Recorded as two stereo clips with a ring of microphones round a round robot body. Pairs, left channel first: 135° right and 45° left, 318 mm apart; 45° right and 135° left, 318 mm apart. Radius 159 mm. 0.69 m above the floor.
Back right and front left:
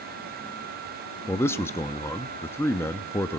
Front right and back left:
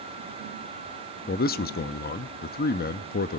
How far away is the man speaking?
About 0.7 m.